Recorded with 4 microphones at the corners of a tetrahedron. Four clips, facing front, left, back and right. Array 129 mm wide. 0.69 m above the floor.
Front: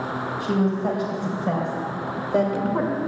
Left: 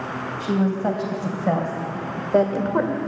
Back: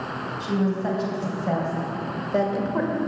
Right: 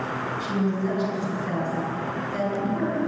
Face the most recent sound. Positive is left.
turn(degrees=80)